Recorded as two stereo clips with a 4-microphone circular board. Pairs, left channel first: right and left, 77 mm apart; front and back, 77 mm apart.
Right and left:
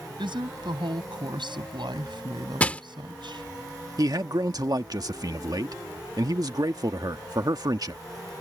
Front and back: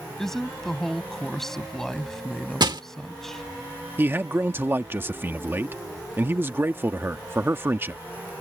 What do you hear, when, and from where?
0.2 s a woman speaking: 85° left
2.6 s crushing: 165° right
4.0 s a man speaking: 120° left